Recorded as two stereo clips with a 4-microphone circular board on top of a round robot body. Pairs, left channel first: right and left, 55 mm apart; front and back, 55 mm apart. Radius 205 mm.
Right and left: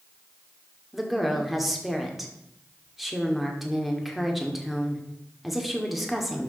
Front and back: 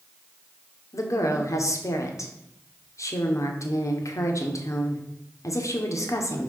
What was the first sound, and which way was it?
A woman speaking, 5° left.